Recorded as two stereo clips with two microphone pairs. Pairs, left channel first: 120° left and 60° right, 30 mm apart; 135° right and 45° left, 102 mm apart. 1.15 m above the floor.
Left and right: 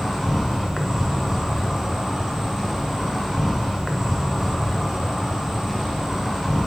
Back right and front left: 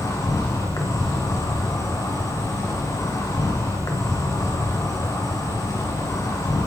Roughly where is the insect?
Behind right.